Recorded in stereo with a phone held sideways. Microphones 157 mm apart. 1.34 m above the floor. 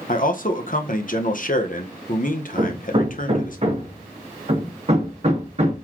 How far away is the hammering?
About 1.3 m.